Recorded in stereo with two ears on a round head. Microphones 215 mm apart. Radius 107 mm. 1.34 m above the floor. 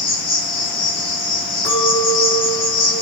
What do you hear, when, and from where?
0.0 s an insect: 25° left (ahead or behind), 6.5 m
1.6 s a clink: 5° left (ahead or behind), 5 m